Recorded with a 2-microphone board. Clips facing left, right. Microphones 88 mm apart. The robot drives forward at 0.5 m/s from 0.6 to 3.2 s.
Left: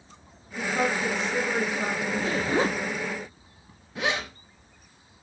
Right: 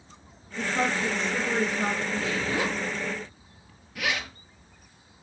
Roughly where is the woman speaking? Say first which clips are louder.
Left 1 dB; centre.